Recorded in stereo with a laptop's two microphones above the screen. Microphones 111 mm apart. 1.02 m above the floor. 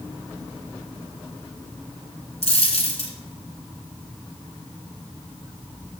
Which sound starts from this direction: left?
A dropped coin, at 2.4 s.